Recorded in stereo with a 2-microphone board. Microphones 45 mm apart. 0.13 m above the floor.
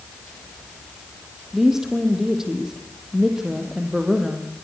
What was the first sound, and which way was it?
A woman speaking, 10° right (ahead or behind).